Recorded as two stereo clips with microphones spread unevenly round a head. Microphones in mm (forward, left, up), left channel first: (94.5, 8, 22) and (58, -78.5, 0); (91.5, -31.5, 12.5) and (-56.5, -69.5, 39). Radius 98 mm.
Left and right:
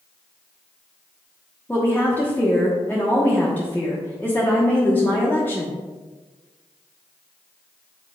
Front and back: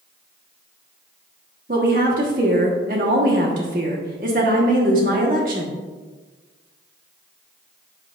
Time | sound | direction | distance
1.7 | a woman speaking | 145° left | 1.2 m